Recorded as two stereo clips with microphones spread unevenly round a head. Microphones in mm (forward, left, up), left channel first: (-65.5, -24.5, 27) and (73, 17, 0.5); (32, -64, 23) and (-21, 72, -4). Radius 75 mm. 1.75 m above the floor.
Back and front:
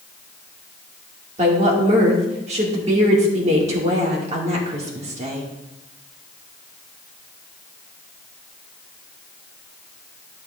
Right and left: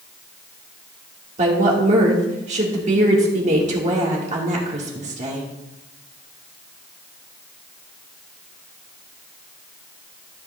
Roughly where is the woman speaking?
Ahead left.